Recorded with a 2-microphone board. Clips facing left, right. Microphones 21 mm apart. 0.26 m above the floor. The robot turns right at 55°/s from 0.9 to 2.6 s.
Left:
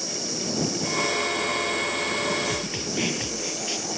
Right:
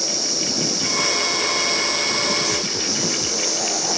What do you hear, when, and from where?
0.0 s an insect: 140° right; by 4.0 s 45° right
2.5 s a snare drum: 70° left (ahead or behind); by 3.9 s 65° left (ahead or behind)